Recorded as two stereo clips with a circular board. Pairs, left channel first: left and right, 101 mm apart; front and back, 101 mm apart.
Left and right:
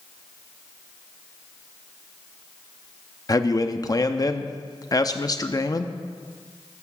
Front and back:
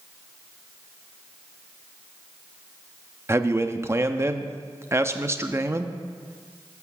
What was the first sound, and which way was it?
A man speaking, 125° left.